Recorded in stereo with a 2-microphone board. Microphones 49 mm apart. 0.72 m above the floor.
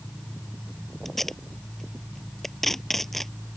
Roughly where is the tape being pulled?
Centre.